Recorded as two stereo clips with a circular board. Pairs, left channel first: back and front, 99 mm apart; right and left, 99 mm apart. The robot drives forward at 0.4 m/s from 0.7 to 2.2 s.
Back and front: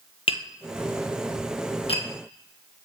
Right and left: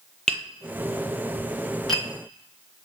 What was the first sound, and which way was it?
Tapping, 175° right.